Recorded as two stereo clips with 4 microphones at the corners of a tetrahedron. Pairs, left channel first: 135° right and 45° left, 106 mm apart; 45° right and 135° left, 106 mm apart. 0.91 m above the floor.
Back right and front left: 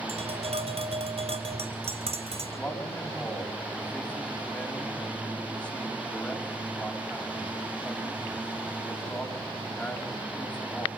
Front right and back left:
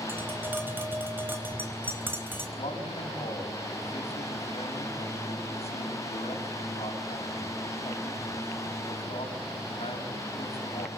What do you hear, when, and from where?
0.1 s tapping: 65° left, 4 m
2.6 s a man speaking: 60° right, 7 m